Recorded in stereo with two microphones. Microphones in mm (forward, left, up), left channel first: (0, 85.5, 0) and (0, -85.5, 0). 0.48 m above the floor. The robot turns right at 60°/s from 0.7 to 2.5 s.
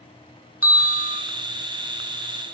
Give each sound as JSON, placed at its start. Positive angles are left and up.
{"t": 0.6, "sound": "a bell", "azimuth_deg": -160, "distance_m": 1.1}